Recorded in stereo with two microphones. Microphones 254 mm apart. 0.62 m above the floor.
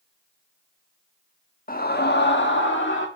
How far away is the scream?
About 1.2 m.